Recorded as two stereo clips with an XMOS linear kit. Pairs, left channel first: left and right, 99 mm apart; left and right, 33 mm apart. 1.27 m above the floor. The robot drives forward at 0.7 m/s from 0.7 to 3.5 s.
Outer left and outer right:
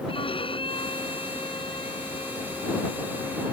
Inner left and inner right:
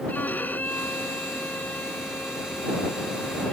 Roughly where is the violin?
Left.